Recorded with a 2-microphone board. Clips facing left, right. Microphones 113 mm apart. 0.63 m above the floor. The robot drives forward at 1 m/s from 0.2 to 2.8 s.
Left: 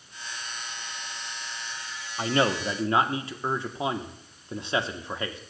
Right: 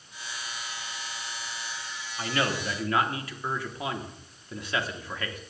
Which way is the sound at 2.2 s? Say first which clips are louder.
Left 5 dB; 35° left (ahead or behind).